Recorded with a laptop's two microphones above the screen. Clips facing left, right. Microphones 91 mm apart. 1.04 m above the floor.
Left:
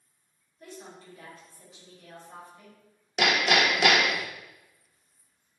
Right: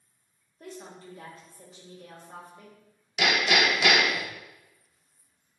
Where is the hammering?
50° left (ahead or behind), 0.7 m.